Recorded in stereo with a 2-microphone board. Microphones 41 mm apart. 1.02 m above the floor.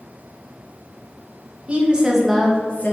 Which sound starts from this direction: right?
A woman speaking, at 1.7 s.